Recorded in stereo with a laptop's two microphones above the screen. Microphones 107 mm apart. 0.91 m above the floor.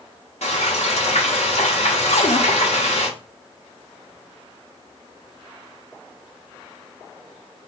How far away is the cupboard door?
About 0.7 m.